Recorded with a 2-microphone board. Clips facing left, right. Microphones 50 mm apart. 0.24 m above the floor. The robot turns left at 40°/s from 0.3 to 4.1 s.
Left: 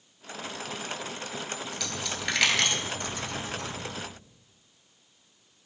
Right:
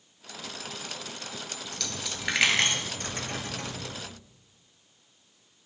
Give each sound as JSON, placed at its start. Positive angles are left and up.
{"t": 1.7, "sound": "a dropped coin", "side_deg": 10, "distance_m": 1.0}